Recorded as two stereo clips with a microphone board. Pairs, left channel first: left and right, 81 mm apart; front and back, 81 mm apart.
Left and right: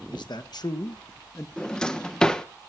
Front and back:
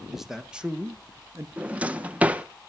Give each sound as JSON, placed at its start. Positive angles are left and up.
{"t": 0.1, "sound": "a man speaking", "azimuth_deg": 95, "distance_m": 1.2}
{"t": 1.6, "sound": "a drawer", "azimuth_deg": 150, "distance_m": 0.7}